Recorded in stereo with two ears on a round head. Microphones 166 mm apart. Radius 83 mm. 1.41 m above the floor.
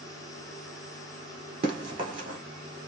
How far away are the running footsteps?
About 1.6 m.